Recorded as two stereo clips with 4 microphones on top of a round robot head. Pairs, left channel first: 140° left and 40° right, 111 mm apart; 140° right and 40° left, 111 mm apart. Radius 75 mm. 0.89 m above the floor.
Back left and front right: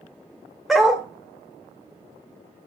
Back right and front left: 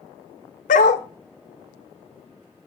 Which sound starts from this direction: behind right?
A dog barking, at 0.7 s.